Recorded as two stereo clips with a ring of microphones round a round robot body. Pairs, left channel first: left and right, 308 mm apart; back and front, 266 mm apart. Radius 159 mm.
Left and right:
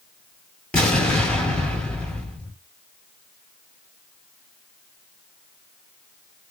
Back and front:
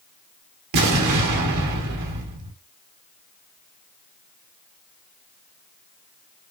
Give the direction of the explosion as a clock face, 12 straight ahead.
12 o'clock.